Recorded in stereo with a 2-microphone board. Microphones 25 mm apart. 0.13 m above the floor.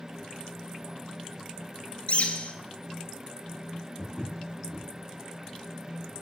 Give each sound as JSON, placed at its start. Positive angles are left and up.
{"t": 2.1, "sound": "a bird", "side_deg": 55, "distance_m": 0.6}
{"t": 4.0, "sound": "footsteps", "side_deg": -20, "distance_m": 3.0}